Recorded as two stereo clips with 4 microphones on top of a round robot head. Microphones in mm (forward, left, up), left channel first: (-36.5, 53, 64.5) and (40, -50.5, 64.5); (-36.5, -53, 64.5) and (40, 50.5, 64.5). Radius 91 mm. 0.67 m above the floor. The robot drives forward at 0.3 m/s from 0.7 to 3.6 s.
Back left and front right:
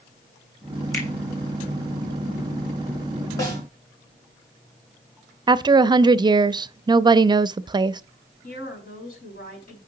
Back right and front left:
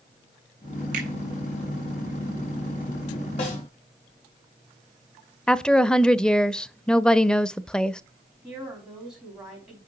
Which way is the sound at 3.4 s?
165° right.